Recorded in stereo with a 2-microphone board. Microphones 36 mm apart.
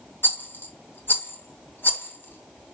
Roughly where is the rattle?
Left.